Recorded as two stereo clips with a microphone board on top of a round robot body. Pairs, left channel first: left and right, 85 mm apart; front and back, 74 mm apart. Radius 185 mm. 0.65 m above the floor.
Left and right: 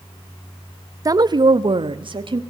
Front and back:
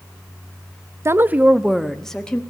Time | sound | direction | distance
1.1 | a woman speaking | 135° right | 0.9 m